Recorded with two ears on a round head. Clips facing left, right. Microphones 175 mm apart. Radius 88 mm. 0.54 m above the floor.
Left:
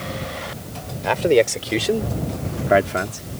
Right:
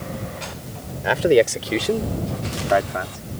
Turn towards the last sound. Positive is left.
turn(degrees=40)  # may be behind; listen again after turning